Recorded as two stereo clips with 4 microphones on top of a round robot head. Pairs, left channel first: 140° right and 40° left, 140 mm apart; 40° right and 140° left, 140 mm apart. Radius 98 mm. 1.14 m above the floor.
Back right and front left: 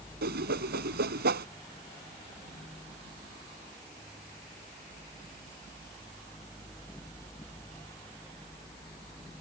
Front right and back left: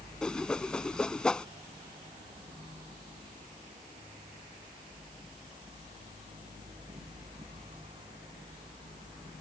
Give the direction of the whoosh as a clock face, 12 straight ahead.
10 o'clock.